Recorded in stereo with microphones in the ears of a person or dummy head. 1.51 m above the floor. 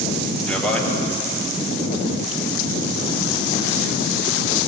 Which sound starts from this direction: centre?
A man speaking, at 0.5 s.